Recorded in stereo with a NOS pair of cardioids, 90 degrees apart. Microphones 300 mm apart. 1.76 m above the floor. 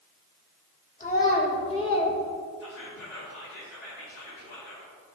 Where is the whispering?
50° left, 2.5 m.